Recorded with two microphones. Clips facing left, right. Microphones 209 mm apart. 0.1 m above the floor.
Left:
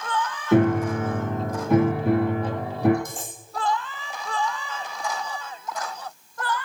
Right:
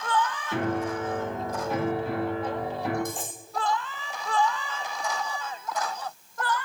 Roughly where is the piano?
Left.